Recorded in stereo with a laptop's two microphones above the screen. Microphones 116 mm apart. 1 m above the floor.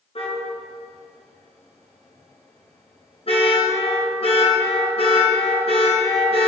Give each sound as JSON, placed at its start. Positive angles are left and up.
{"t": 0.1, "sound": "a car horn", "side_deg": 55, "distance_m": 7.0}